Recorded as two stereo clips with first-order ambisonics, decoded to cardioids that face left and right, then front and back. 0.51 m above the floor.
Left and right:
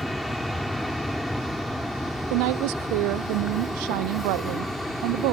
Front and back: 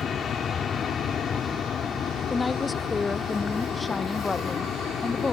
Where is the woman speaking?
80° right.